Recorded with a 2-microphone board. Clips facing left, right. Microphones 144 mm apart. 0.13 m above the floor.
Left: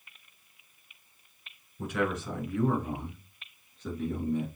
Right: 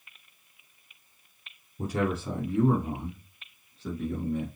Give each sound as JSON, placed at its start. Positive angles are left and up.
{"t": 1.8, "sound": "a man speaking", "side_deg": -40, "distance_m": 1.3}